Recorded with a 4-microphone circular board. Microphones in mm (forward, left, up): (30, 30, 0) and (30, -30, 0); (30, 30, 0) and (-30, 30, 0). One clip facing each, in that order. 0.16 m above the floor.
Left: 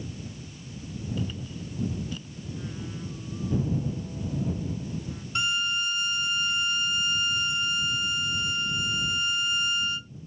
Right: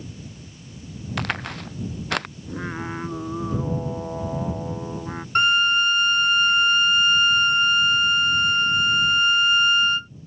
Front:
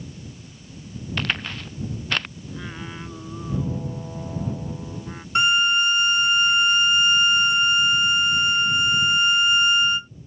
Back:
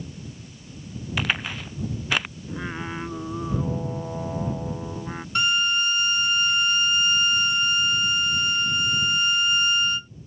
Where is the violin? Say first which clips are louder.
Right 10 dB, front 4 dB; 65° right.